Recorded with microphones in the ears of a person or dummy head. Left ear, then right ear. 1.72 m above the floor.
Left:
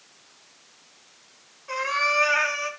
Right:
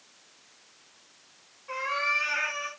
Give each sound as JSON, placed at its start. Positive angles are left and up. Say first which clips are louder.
{"t": 1.7, "sound": "a cat meowing", "louder": "left 4 dB", "side_deg": 15, "distance_m": 5.5}